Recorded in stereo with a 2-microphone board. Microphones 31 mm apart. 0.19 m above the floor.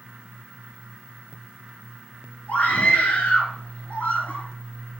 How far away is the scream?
About 3.5 m.